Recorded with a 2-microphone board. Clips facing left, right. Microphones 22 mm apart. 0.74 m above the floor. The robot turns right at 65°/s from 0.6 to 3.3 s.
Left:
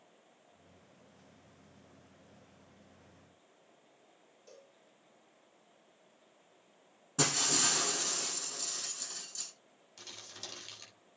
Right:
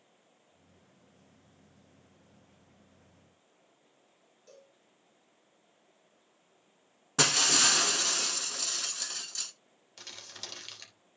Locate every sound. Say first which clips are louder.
4.5 s a cowbell: right 1 dB; centre (ahead or behind), 5.5 m
7.2 s breaking glass: right 6 dB; 40° right (ahead or behind), 1.1 m
10.0 s crumpling: right 3 dB; 25° right (ahead or behind), 3 m